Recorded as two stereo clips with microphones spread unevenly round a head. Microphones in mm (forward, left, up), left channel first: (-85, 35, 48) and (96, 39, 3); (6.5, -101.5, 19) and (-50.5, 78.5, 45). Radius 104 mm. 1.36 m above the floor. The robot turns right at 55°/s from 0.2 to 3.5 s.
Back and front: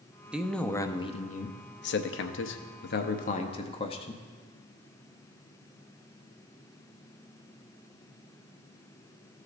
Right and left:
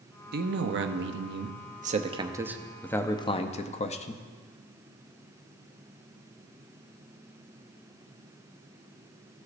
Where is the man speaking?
75° left, 0.6 m; by 4.2 s 110° right, 0.6 m.